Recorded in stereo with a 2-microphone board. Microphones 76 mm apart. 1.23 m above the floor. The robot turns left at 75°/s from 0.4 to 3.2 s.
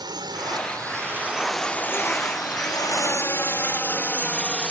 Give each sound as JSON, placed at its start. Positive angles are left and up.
{"t": 0.0, "sound": "a drone", "side_deg": -75}